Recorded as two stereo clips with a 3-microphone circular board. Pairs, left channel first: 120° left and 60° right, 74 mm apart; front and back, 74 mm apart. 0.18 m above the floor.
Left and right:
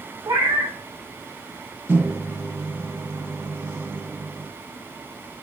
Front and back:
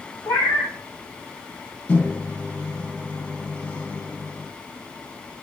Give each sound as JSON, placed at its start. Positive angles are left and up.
{"t": 0.2, "sound": "a cat meowing", "azimuth_deg": -35, "distance_m": 3.0}
{"t": 1.9, "sound": "a microwave", "azimuth_deg": -50, "distance_m": 0.9}